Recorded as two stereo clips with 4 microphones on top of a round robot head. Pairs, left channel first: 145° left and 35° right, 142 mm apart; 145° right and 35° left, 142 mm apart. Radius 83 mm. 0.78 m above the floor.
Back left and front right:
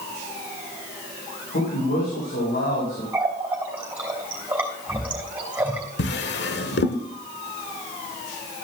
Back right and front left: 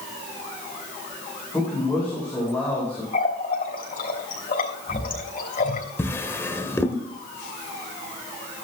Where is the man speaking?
130° left, 4.5 m.